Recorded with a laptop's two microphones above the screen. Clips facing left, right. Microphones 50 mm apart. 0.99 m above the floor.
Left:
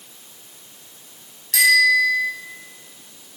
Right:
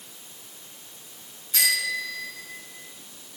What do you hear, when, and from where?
1.5 s a bicycle bell: 80° left, 5 m